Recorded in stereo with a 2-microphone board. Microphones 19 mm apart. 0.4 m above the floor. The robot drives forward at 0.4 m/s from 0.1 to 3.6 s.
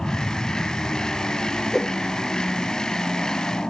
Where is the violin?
I don't hear a violin.